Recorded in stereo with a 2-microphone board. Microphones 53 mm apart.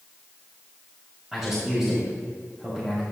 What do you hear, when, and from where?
1.3 s a man speaking: 15° right (ahead or behind), 2.5 m